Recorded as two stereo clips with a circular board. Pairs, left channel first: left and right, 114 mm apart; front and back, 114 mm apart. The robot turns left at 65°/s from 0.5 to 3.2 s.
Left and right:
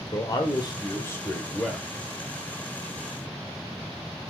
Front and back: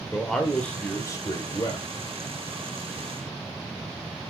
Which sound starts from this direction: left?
A man speaking, at 0.1 s.